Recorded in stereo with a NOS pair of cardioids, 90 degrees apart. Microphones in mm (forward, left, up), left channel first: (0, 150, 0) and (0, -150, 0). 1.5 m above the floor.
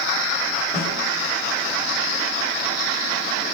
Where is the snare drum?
10° left, 7 m.